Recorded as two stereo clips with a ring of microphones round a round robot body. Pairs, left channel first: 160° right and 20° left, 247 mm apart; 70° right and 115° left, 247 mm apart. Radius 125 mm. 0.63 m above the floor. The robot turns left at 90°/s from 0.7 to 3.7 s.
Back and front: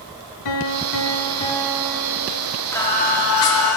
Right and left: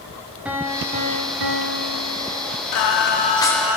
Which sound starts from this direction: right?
Singing, at 2.7 s.